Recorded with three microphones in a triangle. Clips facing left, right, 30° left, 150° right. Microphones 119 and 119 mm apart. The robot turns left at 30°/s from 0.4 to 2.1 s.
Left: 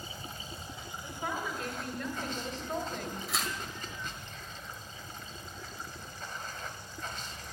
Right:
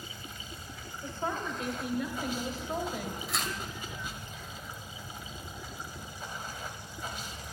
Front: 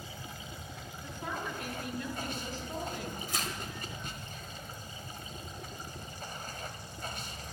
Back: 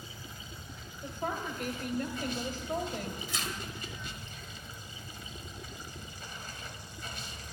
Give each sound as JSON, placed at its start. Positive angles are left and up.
{"t": 0.0, "sound": "running water", "azimuth_deg": 40, "distance_m": 1.2}
{"t": 1.0, "sound": "a woman speaking", "azimuth_deg": -140, "distance_m": 1.8}
{"t": 3.3, "sound": "tearing paper", "azimuth_deg": 0, "distance_m": 1.8}